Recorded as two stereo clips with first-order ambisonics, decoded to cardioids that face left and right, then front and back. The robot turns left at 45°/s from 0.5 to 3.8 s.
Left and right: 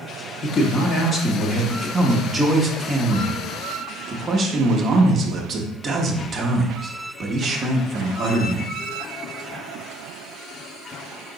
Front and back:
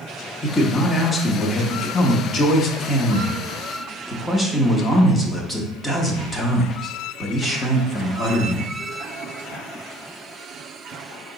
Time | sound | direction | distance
0.4 | a man speaking | 85° left | 0.6 m